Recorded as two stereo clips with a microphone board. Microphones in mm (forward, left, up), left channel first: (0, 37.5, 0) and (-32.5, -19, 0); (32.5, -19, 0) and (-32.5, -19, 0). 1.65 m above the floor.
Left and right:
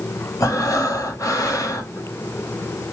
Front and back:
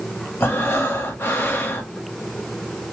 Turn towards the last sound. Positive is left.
turn(degrees=45)